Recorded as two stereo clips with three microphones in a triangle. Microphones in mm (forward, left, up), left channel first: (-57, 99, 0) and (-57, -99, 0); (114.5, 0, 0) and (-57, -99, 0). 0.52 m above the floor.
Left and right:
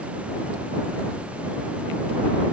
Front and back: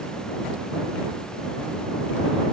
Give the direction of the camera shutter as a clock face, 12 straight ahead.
No camera shutter in this recording.